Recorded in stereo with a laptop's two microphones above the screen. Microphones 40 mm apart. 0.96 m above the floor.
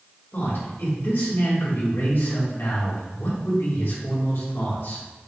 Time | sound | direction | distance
0.3 | a man speaking | 75° left (ahead or behind) | 2.0 m